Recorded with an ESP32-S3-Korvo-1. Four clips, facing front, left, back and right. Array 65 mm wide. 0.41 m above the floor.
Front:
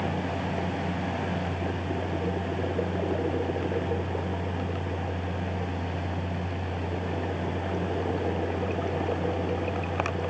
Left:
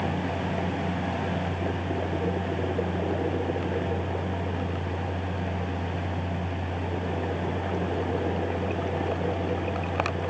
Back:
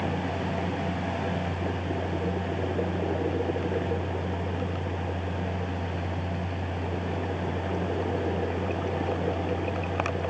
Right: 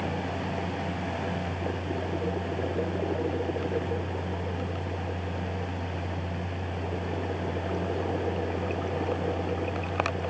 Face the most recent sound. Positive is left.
No sound to turn to.